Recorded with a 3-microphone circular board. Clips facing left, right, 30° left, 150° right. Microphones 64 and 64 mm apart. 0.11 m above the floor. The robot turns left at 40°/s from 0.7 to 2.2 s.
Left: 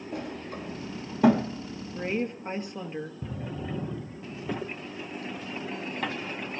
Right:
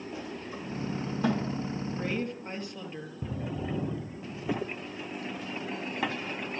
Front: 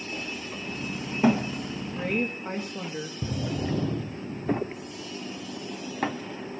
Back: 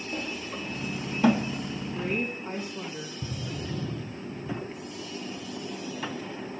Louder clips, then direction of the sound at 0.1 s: Left 6 dB, back 3 dB; 115° left.